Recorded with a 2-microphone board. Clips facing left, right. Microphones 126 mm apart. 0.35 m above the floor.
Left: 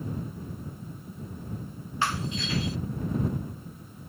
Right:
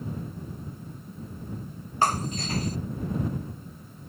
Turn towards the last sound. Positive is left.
turn(degrees=-40)  # may be behind; listen again after turning